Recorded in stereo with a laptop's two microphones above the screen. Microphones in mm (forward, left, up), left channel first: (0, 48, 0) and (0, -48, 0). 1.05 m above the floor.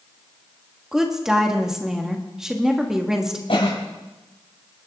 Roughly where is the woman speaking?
Centre.